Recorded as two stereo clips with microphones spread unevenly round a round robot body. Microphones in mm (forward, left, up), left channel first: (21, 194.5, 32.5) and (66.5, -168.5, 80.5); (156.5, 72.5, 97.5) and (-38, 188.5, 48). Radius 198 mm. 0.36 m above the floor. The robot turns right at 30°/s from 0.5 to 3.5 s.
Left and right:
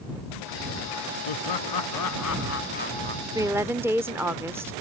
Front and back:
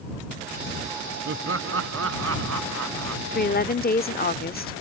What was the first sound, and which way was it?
Laughter, 120° left.